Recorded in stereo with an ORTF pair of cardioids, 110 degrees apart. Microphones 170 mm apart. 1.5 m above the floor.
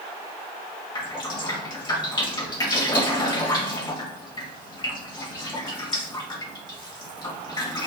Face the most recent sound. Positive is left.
turn(degrees=25)